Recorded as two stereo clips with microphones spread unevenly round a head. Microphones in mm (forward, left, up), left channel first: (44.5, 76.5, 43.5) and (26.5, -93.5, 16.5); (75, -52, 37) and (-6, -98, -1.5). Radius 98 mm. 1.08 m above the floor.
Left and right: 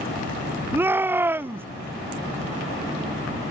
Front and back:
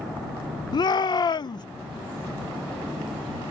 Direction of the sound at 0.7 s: 25° right.